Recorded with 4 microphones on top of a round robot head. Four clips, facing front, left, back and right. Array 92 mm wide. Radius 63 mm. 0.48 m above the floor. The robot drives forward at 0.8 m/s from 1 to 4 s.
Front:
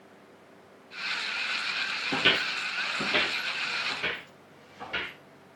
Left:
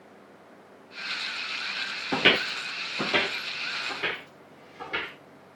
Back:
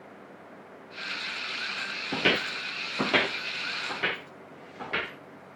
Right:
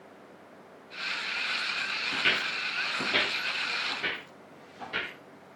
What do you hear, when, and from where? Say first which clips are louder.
2.1 s footsteps: left 7 dB, back 1 dB; 85° left, 0.7 m; by 5.1 s 175° left, 5.5 m